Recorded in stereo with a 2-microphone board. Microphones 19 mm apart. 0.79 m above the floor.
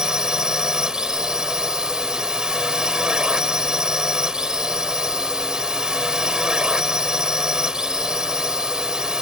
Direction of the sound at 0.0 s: 45° right (ahead or behind).